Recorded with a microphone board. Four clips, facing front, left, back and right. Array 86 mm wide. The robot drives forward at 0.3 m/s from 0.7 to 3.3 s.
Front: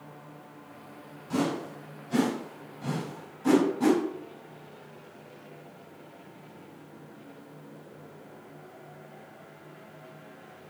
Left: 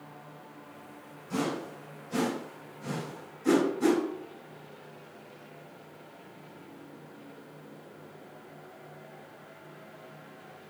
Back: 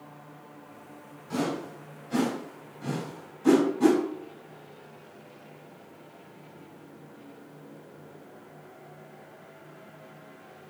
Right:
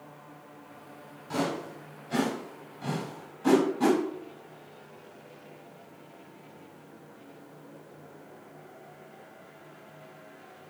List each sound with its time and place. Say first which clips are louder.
1.3 s a whoosh: right 1 dB, front 1 dB; 75° right, 1.9 m; by 4.0 s 95° right, 1.9 m